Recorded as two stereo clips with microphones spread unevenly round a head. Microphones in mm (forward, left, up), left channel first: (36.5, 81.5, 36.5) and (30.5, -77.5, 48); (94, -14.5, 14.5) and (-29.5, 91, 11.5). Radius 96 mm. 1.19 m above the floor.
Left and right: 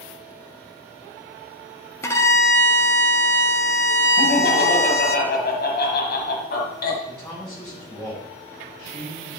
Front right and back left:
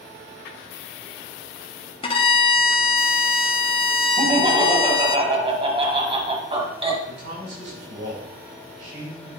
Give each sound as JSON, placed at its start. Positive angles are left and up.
{"t": 2.0, "sound": "a violin", "azimuth_deg": 15, "distance_m": 1.0}
{"t": 4.2, "sound": "laughter", "azimuth_deg": 85, "distance_m": 1.7}
{"t": 7.1, "sound": "a man speaking", "azimuth_deg": 175, "distance_m": 4.5}